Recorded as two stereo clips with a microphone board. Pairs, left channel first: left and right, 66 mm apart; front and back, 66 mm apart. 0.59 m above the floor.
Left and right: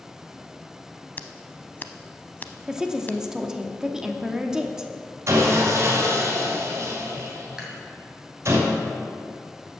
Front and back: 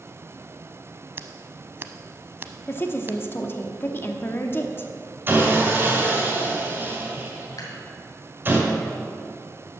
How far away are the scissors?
About 0.6 m.